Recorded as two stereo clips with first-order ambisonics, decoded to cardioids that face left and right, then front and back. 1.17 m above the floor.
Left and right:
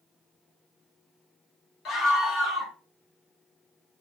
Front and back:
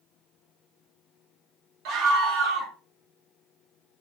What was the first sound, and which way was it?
A scream, 145° left.